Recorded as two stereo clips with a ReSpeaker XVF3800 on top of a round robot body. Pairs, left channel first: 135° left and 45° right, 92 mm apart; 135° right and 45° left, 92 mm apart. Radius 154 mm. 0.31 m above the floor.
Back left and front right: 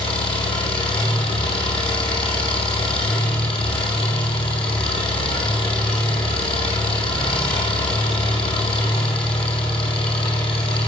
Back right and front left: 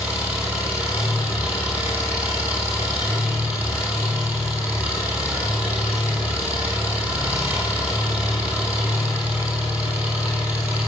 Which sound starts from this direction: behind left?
An engine running, at 0.0 s.